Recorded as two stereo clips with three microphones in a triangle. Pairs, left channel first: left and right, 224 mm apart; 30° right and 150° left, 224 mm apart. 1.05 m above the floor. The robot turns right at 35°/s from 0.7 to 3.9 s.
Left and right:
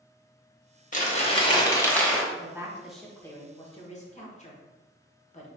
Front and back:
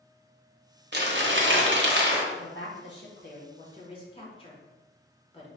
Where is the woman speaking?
20° right, 1.3 m; by 5.5 s 35° left, 1.3 m.